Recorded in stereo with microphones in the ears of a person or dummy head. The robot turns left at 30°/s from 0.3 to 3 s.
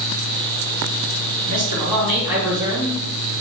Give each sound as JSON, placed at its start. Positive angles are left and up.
{"t": 1.5, "sound": "a man speaking", "azimuth_deg": -150, "distance_m": 4.0}